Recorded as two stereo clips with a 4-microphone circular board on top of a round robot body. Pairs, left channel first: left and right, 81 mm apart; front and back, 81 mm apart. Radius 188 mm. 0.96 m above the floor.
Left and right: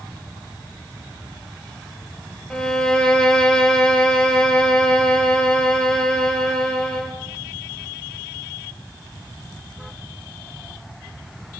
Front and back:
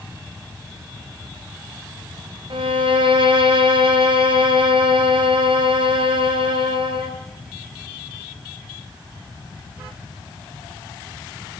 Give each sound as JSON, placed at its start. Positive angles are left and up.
{"t": 2.5, "sound": "a violin", "azimuth_deg": 170, "distance_m": 2.5}